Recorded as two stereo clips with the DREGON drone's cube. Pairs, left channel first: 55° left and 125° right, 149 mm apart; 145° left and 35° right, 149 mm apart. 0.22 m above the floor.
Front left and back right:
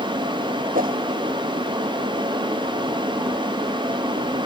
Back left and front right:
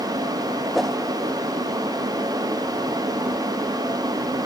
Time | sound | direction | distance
0.7 | a whoosh | 125° right | ?